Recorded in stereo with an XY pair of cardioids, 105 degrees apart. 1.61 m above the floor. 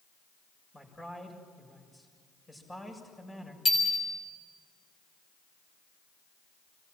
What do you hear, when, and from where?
0.7 s a man speaking: 15° left, 7 m
3.6 s a bicycle bell: 25° left, 5.5 m